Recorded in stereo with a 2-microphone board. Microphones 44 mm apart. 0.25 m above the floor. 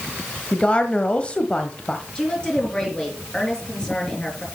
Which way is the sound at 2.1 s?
20° left (ahead or behind).